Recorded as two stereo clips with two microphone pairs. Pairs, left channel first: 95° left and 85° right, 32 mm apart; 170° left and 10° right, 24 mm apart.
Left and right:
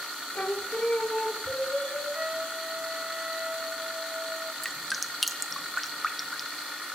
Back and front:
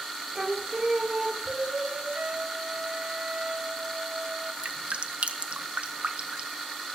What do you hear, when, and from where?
0.3 s singing: 65° left, 3.5 m
2.1 s a trumpet: 25° right, 1.2 m
4.6 s dripping: 10° left, 1.4 m